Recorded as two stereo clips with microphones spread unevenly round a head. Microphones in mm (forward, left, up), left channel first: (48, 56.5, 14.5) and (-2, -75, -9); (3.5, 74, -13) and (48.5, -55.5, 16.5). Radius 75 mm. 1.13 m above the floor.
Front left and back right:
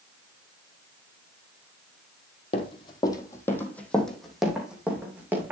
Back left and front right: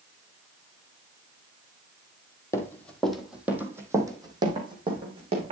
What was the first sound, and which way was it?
Running footsteps, 35° left.